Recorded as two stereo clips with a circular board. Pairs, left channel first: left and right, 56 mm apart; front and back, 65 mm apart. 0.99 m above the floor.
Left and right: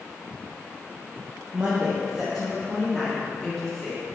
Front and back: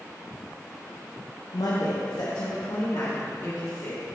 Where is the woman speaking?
30° right, 0.6 m; by 4.0 s 15° left, 2 m.